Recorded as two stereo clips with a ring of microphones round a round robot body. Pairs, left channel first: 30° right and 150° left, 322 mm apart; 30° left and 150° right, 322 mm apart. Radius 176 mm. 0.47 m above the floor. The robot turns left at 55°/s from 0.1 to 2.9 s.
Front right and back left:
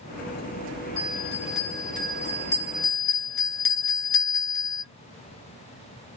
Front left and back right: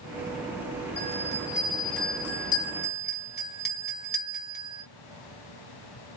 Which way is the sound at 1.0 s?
95° left.